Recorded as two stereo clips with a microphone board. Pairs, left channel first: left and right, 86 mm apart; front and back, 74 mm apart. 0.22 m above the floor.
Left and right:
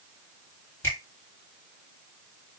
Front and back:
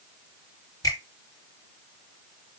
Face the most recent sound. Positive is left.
turn(degrees=30)